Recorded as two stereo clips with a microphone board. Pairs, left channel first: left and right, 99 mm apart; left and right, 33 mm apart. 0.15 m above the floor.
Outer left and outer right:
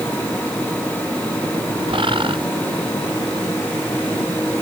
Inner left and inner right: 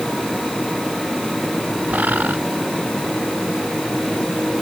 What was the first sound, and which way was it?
A bird, 55° right (ahead or behind).